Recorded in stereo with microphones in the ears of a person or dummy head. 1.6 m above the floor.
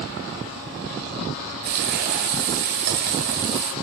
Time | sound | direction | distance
1.6 | frying | 60° right (ahead or behind) | 2.5 m